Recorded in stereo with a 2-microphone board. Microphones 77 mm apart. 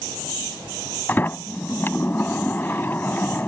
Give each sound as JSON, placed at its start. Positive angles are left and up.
{"t": 1.1, "sound": "a sliding door", "side_deg": 25}